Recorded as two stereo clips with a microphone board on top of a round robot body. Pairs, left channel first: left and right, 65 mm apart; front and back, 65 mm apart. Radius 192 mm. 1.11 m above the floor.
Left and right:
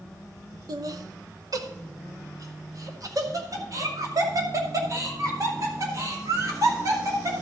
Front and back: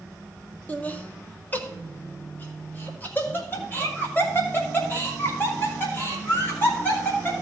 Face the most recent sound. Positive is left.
turn(degrees=-55)